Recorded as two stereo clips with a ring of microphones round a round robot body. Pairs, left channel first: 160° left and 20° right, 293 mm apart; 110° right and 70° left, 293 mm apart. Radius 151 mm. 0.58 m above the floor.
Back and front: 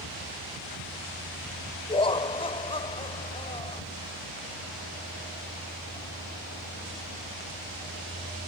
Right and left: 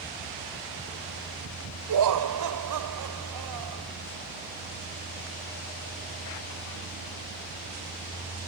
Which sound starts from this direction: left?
Laughter, at 1.9 s.